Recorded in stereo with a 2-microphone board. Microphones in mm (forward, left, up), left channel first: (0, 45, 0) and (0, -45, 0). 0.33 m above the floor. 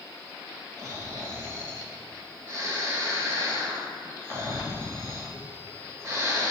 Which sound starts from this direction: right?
Snoring, at 0.8 s.